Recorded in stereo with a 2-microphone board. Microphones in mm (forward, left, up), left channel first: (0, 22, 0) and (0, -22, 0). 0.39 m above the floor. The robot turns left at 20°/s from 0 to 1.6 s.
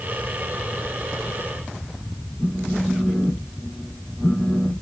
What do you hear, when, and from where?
2.4 s a phone buzzing: 15° left (ahead or behind), 1.0 m